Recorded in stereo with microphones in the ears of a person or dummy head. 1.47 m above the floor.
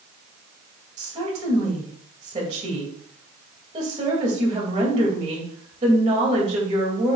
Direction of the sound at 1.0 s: 30° right (ahead or behind).